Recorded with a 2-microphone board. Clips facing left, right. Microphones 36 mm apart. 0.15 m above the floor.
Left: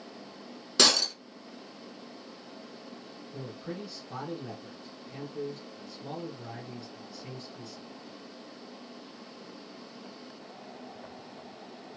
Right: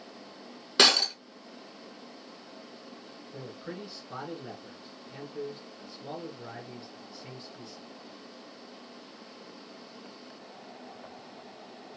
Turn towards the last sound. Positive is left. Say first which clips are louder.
# left 1 dB
turn(degrees=-20)  # may be behind; listen again after turning